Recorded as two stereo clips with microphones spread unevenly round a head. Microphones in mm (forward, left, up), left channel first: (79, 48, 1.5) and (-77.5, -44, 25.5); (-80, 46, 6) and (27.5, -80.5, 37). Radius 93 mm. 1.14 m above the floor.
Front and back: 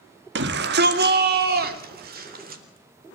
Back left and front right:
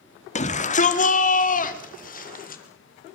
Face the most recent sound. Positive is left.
turn(degrees=165)